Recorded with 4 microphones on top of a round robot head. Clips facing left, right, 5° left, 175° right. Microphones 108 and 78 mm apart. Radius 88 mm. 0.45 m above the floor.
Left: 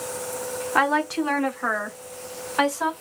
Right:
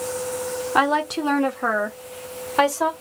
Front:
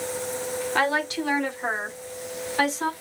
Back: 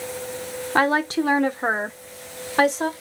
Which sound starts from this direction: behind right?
A woman speaking, at 0.8 s.